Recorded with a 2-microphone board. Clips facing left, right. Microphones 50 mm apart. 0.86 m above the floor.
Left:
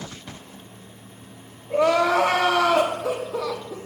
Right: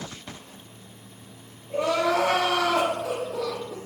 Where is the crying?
70° left (ahead or behind), 0.6 m.